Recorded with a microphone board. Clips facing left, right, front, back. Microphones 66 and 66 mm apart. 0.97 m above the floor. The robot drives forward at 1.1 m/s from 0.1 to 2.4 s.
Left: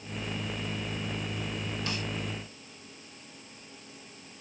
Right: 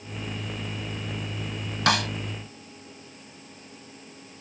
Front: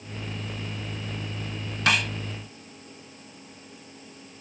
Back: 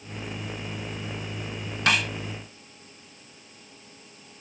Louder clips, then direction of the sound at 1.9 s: Right 16 dB, even; 90° right.